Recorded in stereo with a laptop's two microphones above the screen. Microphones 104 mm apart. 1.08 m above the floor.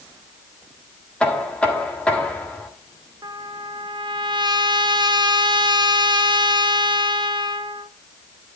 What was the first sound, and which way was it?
Knocking, 10° left (ahead or behind).